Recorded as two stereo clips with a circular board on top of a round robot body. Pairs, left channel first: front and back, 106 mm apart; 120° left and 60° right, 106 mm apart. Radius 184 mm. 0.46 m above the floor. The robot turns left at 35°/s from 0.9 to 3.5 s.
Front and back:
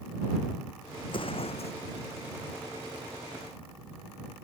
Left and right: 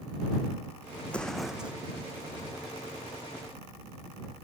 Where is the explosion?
45° left; by 1.7 s 20° left.